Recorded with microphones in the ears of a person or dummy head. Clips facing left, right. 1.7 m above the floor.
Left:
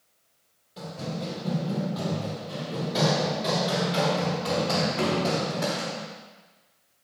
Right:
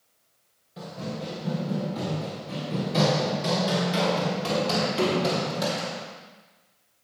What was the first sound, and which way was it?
Running footsteps, 5° right (ahead or behind).